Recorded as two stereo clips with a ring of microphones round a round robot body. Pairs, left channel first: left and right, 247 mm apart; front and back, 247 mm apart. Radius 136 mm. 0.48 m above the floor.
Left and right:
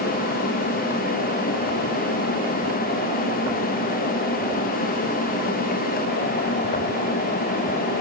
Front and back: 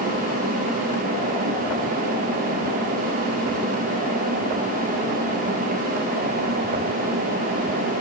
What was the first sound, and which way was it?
Only background noise.